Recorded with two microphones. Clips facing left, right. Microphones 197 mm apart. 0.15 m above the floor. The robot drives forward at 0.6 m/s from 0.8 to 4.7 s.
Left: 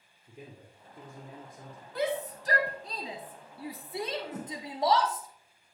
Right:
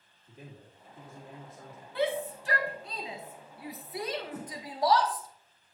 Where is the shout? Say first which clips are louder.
Right 1 dB; 40° left (ahead or behind), 1.3 m; by 5.3 s 25° left (ahead or behind), 2 m.